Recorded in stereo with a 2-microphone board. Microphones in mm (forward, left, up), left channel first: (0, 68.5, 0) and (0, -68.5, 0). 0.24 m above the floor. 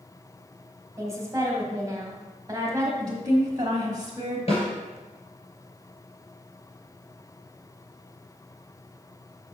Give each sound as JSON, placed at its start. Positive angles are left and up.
{"t": 1.0, "sound": "a woman speaking", "side_deg": -20, "distance_m": 1.5}
{"t": 3.0, "sound": "a woman speaking", "side_deg": -30, "distance_m": 1.2}
{"t": 4.5, "sound": "a snare drum", "side_deg": 50, "distance_m": 3.0}